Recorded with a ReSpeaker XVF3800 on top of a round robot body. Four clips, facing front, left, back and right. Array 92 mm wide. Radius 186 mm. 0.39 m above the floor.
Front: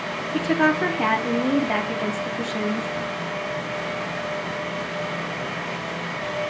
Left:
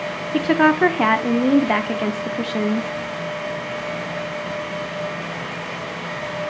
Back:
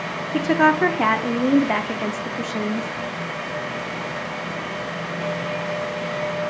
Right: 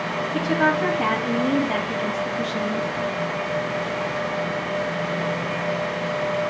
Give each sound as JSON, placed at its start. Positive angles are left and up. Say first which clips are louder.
{"t": 0.3, "sound": "a woman speaking", "louder": "left 5 dB, back 3 dB", "azimuth_deg": 115, "distance_m": 1.2}